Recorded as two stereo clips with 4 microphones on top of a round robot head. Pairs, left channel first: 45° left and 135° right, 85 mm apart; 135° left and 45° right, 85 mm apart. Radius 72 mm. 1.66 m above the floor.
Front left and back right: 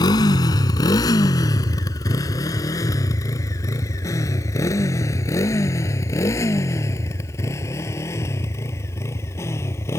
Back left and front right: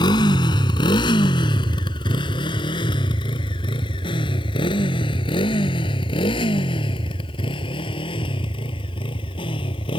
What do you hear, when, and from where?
0.0 s a motorcycle: 90° left; by 10.0 s 110° left